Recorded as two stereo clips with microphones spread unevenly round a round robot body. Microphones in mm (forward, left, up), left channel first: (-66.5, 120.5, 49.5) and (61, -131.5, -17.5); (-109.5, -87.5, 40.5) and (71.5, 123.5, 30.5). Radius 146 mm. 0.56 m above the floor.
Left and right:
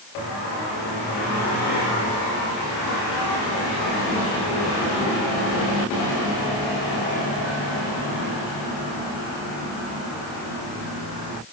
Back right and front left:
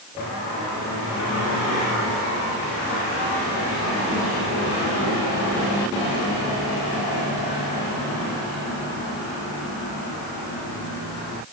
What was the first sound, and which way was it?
Only background noise.